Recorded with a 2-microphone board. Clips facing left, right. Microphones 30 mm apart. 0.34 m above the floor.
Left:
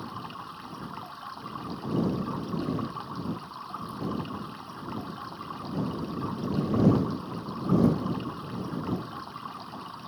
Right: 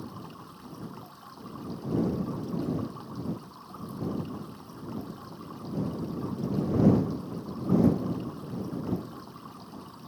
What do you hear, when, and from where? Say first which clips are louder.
0.0 s running water: left 4 dB; 40° left (ahead or behind)